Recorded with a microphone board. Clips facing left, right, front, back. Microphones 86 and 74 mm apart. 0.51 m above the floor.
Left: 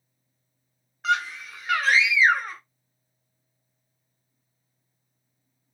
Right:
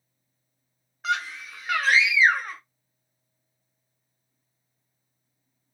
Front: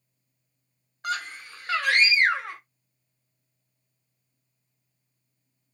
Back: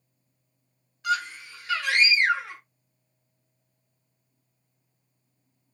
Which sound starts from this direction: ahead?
A scream, at 1.0 s.